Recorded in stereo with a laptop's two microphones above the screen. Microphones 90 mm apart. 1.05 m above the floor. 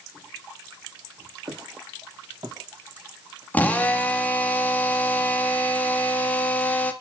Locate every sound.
1.5 s footsteps: 65° right (ahead or behind), 5 m; by 3.4 s 50° right (ahead or behind), 4 m
3.5 s a drill: 15° left (ahead or behind), 1.4 m